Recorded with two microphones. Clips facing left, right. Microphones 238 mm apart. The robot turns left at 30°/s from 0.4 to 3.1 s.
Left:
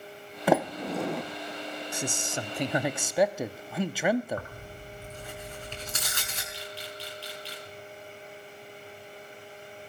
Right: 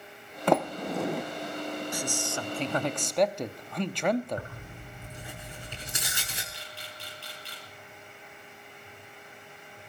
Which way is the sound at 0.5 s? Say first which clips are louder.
Left 1 dB; 5° left (ahead or behind).